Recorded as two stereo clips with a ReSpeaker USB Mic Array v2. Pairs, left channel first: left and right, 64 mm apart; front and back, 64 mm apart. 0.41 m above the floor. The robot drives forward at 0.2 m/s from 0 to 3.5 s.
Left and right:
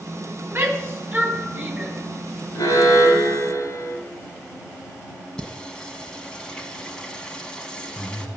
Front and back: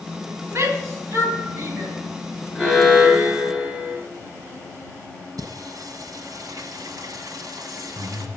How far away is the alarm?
About 3 m.